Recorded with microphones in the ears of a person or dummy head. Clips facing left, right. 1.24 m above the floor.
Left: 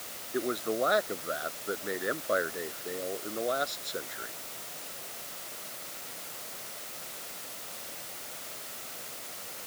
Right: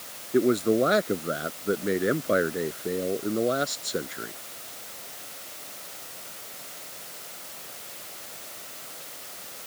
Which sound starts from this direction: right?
A man speaking, at 0.3 s.